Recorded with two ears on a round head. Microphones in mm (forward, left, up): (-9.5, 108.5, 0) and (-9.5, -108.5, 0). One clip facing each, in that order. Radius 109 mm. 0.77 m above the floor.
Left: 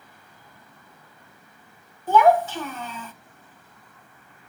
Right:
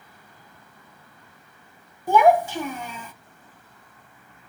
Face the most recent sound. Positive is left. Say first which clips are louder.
# even
turn(degrees=-10)  # may be behind; listen again after turning